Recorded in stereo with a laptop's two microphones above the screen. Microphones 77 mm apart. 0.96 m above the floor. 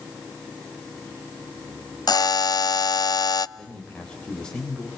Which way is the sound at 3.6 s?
10° left (ahead or behind).